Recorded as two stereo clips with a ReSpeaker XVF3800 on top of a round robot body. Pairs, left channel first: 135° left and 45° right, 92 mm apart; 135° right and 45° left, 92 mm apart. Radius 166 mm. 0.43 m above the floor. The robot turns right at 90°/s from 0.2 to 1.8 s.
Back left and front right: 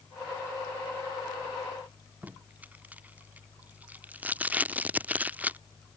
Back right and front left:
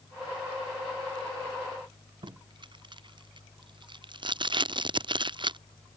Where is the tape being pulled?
25° left.